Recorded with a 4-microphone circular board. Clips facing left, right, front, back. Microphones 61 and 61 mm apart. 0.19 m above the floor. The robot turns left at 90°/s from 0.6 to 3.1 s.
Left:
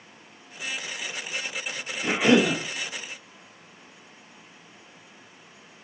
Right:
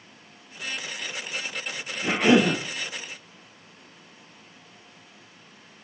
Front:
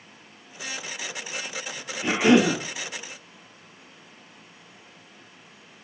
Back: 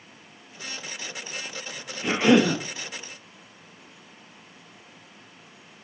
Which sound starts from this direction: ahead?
A cough, at 2.0 s.